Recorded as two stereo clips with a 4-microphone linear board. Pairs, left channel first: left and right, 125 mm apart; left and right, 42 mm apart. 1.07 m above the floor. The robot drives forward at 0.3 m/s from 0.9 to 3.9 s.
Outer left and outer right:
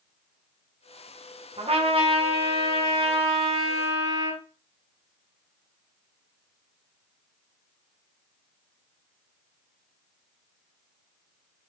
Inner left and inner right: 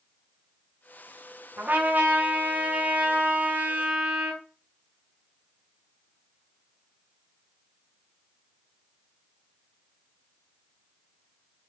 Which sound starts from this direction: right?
A trumpet, at 1.6 s.